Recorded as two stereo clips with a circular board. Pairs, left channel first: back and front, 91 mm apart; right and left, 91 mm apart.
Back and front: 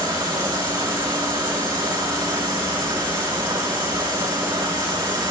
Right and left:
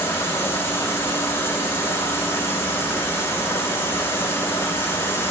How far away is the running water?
About 5 m.